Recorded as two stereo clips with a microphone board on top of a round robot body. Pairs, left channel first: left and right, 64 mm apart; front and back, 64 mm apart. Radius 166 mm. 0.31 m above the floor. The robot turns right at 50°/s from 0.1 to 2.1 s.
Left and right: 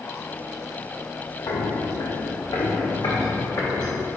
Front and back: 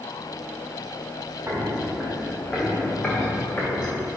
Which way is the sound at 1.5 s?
115° left.